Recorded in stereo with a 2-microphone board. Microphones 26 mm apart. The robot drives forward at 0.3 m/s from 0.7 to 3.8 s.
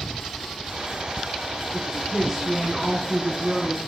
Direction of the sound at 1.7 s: 15° right (ahead or behind).